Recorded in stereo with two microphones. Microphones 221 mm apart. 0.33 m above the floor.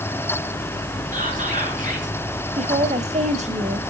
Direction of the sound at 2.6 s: 35° right (ahead or behind).